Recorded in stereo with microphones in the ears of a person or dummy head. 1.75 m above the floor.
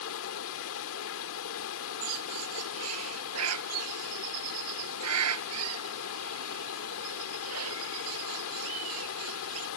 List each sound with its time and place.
0.0 s running water: 70° left (ahead or behind)
2.0 s a bird: 80° right